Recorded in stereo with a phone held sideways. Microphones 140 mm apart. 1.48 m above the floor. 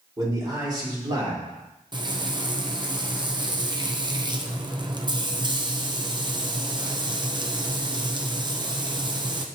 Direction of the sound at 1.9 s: 35° right (ahead or behind).